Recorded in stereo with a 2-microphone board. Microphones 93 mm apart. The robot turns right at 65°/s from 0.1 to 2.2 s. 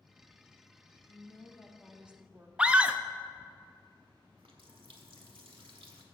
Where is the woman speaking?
130° left, 1.3 m; by 2.5 s 160° right, 1.3 m.